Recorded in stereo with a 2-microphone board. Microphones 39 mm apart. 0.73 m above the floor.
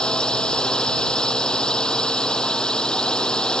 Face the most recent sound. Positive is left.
turn(degrees=20)  # may be behind; listen again after turning